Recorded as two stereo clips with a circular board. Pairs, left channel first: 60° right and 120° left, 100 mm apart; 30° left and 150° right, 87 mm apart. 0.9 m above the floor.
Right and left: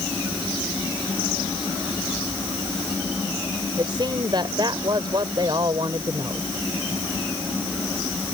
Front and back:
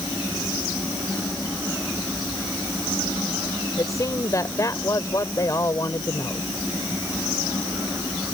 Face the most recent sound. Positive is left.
turn(degrees=80)